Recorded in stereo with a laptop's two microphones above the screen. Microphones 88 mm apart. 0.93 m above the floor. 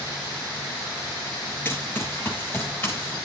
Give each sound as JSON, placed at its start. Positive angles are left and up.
{"t": 1.6, "sound": "running footsteps", "side_deg": 25, "distance_m": 5.5}